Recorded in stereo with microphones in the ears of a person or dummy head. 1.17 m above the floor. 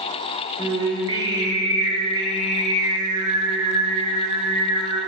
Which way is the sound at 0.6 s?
20° right (ahead or behind).